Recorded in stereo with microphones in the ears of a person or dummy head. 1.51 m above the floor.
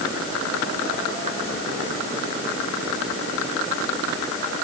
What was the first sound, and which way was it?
Only background noise.